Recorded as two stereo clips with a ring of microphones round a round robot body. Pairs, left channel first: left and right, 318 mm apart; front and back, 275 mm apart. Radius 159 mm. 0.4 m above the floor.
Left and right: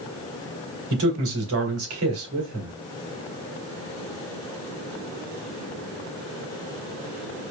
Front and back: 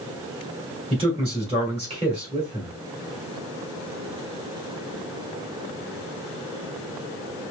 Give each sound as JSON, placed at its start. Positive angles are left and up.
{"t": 0.9, "sound": "a man speaking", "azimuth_deg": -115, "distance_m": 2.0}